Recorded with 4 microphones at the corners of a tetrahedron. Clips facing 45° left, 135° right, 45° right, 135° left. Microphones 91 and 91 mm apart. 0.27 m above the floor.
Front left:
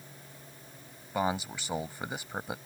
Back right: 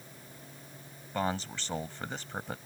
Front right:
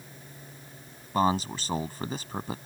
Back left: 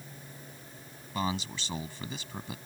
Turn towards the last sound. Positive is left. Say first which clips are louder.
# front left 2 dB, front right 8 dB
turn(degrees=-30)